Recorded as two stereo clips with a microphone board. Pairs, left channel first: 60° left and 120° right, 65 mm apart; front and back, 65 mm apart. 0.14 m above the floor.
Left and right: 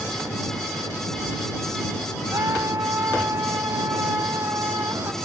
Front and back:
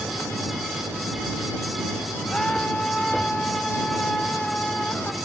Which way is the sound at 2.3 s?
80° right.